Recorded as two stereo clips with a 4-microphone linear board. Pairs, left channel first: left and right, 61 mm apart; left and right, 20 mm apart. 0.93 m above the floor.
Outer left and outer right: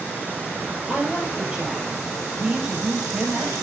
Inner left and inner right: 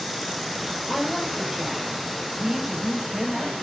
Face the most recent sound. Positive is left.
turn(degrees=-10)  # may be behind; listen again after turning